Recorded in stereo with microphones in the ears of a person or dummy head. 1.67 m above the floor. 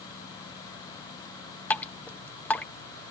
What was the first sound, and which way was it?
Dripping, 10° left (ahead or behind).